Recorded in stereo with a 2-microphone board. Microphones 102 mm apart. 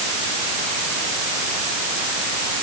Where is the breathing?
No breathing in this recording.